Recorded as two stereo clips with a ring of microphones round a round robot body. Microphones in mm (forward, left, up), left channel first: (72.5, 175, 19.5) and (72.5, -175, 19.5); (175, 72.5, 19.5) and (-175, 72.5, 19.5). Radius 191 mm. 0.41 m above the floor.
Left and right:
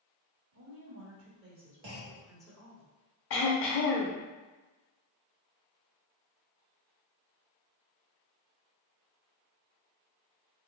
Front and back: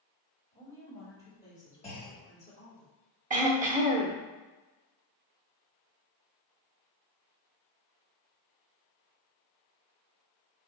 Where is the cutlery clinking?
No cutlery clinking in this recording.